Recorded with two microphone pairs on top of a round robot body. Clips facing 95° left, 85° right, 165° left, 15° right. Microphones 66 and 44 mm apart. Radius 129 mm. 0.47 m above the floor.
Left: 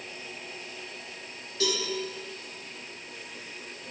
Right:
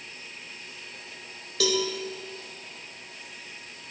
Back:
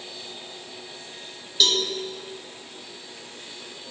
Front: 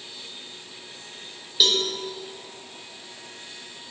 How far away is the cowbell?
About 1.1 m.